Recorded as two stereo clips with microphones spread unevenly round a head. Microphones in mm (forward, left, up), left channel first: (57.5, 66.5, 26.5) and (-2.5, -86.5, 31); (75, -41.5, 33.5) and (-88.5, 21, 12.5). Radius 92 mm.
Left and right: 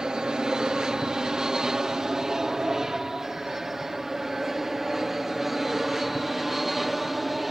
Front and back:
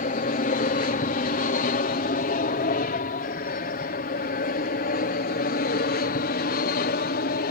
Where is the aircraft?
25° right; by 7.5 s 20° right.